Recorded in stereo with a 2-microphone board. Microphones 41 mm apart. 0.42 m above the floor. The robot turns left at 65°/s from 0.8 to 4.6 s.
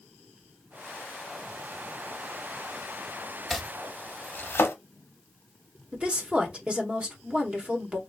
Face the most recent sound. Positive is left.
turn(degrees=-30)  # may be behind; listen again after turning